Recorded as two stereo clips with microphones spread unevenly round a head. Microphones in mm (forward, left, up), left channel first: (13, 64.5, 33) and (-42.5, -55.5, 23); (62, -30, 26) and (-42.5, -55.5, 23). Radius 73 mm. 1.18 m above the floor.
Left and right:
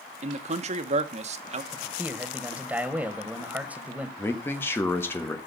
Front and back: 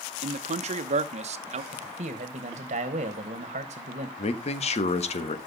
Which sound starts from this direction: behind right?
A man speaking, at 0.2 s.